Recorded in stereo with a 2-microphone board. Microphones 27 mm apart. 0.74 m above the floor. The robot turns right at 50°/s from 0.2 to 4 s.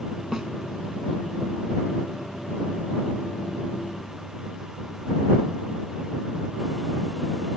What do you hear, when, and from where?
0.3 s a snare drum: 25° right (ahead or behind); by 0.5 s 35° right (ahead or behind)